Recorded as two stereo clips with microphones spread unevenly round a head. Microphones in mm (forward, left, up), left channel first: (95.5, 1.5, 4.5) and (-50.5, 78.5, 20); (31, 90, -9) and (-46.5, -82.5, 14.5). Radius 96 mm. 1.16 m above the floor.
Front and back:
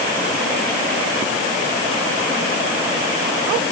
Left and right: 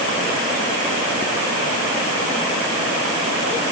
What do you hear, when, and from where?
Only background noise.